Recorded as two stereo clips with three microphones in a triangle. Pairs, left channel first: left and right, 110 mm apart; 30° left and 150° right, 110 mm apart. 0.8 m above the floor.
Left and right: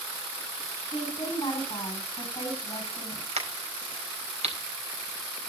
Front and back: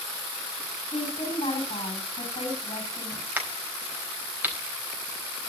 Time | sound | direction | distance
0.9 | a woman speaking | 40° left | 7 m
3.4 | a crack | 75° right | 4.5 m